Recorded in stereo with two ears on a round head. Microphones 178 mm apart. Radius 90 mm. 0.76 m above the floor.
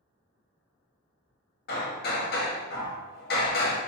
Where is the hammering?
50° left (ahead or behind), 1.2 m.